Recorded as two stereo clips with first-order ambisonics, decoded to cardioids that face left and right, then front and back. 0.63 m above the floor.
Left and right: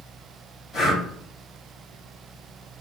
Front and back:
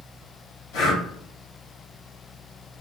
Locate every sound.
0.7 s breathing: 25° left, 1.6 m